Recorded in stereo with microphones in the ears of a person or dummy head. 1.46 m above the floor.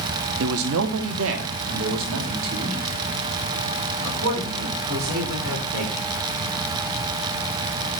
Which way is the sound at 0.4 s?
75° right (ahead or behind).